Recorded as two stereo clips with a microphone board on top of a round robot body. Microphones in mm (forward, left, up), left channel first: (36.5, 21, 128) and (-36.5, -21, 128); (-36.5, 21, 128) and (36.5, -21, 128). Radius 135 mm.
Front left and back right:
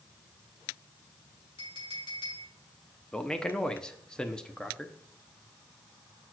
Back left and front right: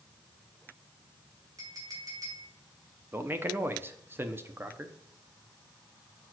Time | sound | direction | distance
1.6 | a clink | 15° left | 2.5 m
3.1 | a man speaking | 40° right | 1.0 m